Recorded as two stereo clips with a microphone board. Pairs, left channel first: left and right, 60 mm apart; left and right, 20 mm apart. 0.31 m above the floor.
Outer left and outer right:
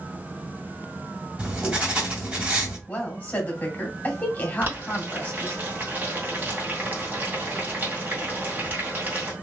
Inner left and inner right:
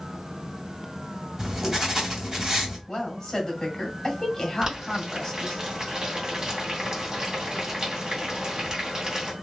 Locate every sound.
1.4 s writing: 15° right (ahead or behind), 2.0 m
2.9 s a woman speaking: 30° left (ahead or behind), 2.0 m
4.6 s boiling: 30° right (ahead or behind), 1.8 m